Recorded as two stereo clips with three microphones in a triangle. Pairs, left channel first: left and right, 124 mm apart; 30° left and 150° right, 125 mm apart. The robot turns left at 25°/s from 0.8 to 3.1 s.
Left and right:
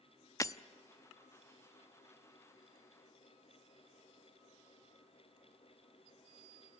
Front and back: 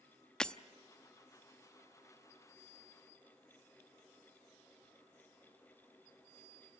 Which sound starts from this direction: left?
Breaking glass, at 0.4 s.